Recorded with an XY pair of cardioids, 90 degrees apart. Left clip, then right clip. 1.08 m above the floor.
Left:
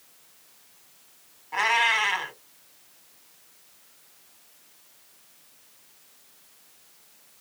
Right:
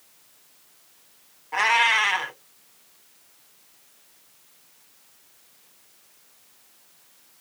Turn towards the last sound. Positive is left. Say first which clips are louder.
# right 3 dB
turn(degrees=-25)